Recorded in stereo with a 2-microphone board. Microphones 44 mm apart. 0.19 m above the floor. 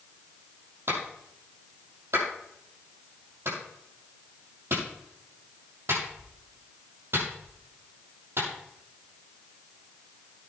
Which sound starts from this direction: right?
A clap, at 0.9 s.